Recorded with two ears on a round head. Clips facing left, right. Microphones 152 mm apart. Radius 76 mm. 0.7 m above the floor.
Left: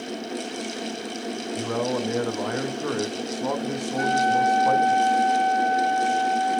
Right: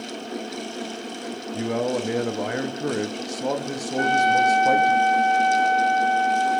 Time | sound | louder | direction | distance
1.5 | a man speaking | right 2 dB | 20° right (ahead or behind) | 0.9 m
4.0 | a trumpet | right 2 dB | 30° right (ahead or behind) | 0.7 m